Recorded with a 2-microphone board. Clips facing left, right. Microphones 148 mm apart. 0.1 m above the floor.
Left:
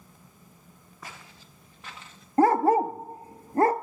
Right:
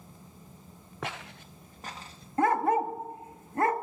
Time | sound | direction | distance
1.0 | footsteps | 80° right | 0.7 m
2.4 | a dog barking | 40° left (ahead or behind) | 0.5 m